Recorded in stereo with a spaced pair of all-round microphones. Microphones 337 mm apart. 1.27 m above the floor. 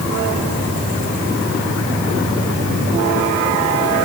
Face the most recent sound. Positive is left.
No sound to turn to.